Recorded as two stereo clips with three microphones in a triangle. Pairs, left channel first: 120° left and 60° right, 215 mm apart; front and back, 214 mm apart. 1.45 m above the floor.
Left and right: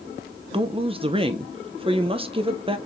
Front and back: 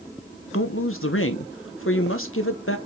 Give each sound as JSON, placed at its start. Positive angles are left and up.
{"t": 0.5, "sound": "a woman speaking", "azimuth_deg": 5, "distance_m": 1.4}